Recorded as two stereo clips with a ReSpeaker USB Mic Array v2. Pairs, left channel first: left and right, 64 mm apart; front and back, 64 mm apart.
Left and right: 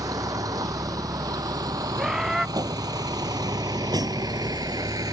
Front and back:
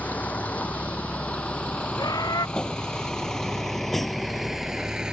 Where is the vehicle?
65° right; by 5.1 s 100° right.